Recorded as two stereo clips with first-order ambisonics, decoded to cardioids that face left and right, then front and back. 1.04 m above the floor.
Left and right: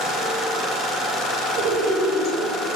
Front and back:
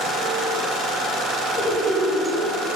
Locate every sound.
1.6 s laughter: 75° right, 4 m; by 2.6 s 90° right, 3 m